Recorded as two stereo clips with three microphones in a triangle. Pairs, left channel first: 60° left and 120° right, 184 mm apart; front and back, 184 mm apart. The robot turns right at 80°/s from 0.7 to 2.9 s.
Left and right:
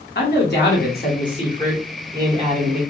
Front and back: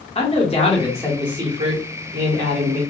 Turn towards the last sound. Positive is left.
turn(degrees=-130)